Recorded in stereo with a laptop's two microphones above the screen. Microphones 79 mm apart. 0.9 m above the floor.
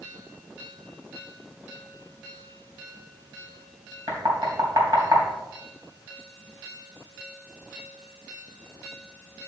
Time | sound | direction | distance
4.1 | knocking | 50° right (ahead or behind) | 3.5 m